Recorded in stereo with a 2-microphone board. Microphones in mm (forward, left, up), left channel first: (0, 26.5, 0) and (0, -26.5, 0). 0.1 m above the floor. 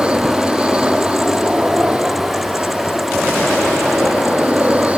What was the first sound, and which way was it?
An aircraft, 20° right (ahead or behind).